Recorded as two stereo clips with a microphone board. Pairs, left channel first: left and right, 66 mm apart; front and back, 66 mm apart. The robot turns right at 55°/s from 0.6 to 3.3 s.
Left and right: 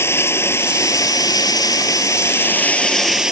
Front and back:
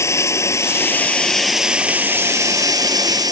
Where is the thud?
No thud in this recording.